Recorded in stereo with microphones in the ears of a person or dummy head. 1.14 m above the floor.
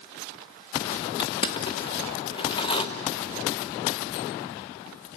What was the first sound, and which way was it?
Crushing, 20° left (ahead or behind).